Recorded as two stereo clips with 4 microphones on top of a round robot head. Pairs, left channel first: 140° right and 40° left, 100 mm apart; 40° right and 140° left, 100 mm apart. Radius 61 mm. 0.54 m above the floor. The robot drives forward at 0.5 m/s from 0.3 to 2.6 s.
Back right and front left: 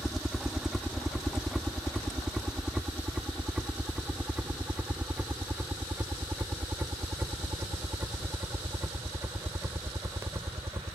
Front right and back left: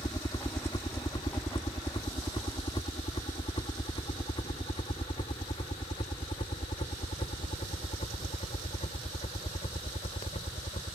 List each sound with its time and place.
0.0 s a helicopter: 50° right; by 10.9 s 25° right